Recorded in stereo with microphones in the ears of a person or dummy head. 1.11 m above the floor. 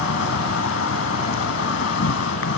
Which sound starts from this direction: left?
An insect, at 0.0 s.